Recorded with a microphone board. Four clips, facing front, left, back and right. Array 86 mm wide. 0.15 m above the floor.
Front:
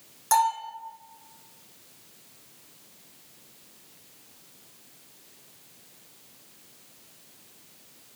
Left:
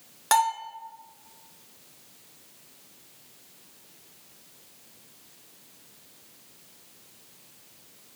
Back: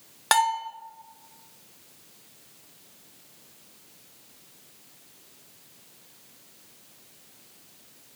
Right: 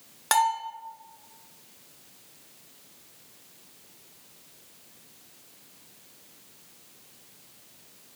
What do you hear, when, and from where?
0.3 s a bell: straight behind, 1.1 m